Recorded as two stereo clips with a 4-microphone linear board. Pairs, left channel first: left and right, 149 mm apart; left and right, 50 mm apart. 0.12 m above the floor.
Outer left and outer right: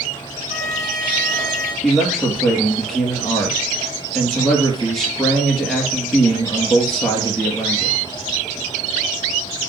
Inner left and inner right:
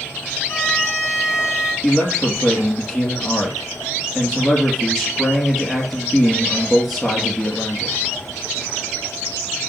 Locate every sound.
0.5 s a violin: 45° left (ahead or behind), 5 m
1.8 s a man speaking: centre (ahead or behind), 2.5 m